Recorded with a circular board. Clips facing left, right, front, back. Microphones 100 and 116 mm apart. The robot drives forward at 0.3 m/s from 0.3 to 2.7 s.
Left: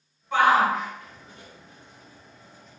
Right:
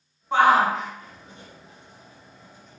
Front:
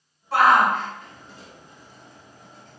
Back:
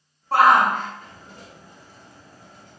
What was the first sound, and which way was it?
A shout, 140° right.